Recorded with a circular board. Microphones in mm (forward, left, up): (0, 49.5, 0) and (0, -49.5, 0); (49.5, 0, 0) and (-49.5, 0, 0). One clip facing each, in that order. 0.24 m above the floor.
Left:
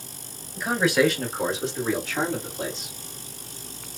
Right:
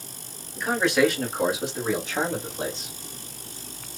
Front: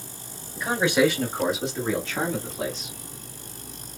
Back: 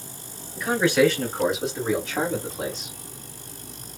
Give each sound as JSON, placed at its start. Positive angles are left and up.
{"t": 0.6, "sound": "a man speaking", "azimuth_deg": 20, "distance_m": 1.6}